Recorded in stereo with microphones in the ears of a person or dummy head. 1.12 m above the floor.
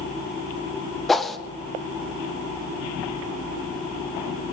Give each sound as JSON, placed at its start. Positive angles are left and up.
{"t": 1.1, "sound": "a whoosh", "side_deg": 0, "distance_m": 0.5}